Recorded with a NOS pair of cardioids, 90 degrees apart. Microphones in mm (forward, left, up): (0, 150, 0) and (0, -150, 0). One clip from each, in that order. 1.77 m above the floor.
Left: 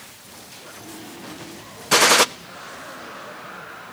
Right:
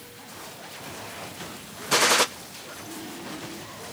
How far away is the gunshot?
About 0.6 m.